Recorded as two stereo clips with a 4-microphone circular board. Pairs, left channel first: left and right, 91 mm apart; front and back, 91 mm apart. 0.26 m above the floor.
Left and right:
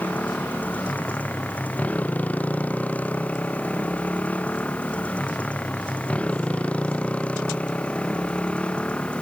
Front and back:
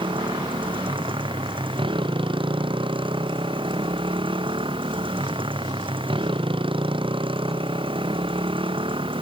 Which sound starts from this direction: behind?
A motorcycle, at 0.0 s.